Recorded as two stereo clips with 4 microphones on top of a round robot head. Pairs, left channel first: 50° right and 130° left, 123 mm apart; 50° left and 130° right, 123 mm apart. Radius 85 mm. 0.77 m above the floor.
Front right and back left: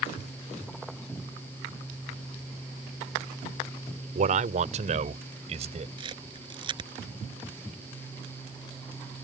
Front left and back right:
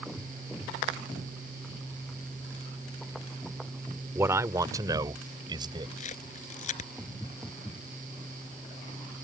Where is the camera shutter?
80° left.